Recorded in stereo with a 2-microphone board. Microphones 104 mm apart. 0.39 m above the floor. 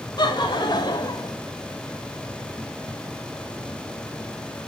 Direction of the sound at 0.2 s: 45° left (ahead or behind).